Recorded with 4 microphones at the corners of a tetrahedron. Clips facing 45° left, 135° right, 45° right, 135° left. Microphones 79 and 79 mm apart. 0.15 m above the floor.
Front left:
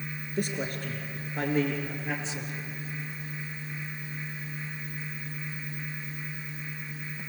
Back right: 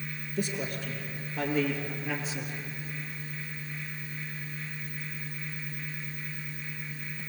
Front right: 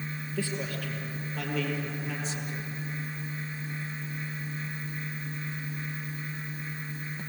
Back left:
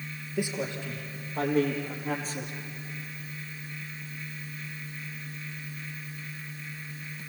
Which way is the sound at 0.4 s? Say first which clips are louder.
Front left 1 dB, back left 3 dB; 65° left.